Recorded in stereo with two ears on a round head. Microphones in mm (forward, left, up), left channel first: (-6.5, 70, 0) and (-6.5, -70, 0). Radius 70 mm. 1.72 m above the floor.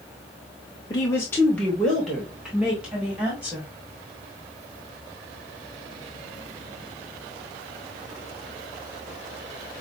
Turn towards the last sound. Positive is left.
turn(degrees=-10)  # may be behind; listen again after turning